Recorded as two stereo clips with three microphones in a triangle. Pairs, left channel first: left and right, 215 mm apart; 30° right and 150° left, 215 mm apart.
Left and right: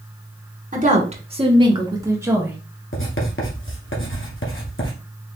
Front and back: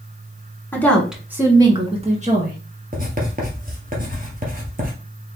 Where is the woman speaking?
105° right, 1.4 m; by 2.6 s 170° right, 1.9 m.